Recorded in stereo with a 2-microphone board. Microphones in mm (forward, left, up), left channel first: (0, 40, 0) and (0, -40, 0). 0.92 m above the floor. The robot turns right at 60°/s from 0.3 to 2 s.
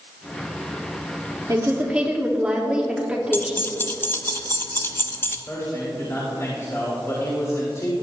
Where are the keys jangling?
25° left (ahead or behind), 0.8 m.